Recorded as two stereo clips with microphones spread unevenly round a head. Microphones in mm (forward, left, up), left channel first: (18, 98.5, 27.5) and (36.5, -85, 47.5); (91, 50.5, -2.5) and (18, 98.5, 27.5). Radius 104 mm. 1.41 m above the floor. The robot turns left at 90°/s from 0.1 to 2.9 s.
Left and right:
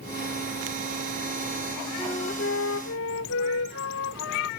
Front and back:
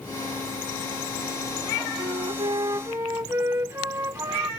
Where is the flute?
175° left; by 4.5 s 95° left.